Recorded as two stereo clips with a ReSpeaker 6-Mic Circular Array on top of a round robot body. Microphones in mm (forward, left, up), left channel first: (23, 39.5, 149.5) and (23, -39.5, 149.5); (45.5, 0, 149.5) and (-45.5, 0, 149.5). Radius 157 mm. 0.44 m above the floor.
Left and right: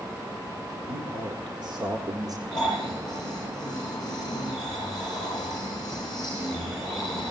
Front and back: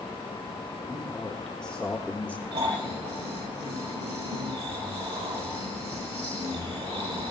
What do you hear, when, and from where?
0.9 s a man speaking: 85° right, 2.5 m; by 2.4 s 70° right, 1.4 m
2.5 s snoring: 170° left, 9.5 m